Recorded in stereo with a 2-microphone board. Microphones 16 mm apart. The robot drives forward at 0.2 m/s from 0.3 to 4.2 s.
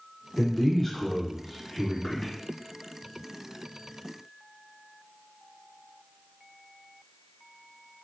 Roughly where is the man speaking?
Left.